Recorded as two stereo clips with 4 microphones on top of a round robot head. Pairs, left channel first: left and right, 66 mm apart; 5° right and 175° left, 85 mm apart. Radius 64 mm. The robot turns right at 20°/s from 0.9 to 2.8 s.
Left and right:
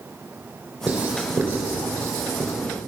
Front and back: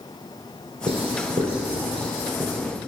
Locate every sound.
0.9 s writing: 165° right, 3.5 m; by 2.5 s 135° right, 3.5 m